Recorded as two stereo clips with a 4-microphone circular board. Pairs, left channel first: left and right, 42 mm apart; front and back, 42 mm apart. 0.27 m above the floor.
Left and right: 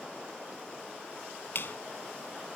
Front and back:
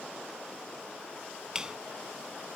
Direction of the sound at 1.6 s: 110° left.